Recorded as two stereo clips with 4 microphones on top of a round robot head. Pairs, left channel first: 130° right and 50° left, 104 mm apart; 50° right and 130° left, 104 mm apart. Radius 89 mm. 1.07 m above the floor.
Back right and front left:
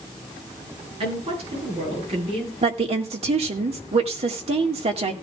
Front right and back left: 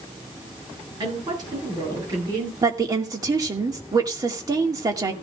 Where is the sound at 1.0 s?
80° left, 9.5 m; by 2.5 s 75° left, 9 m.